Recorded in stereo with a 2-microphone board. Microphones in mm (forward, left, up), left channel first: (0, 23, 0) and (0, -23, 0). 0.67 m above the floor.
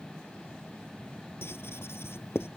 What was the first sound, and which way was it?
Writing, 60° left (ahead or behind).